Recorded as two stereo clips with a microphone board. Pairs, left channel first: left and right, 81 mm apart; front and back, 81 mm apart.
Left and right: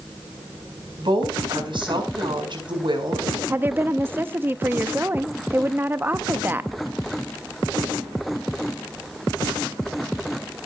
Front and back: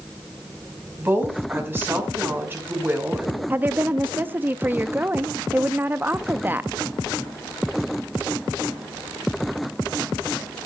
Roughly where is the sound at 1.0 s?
Behind right.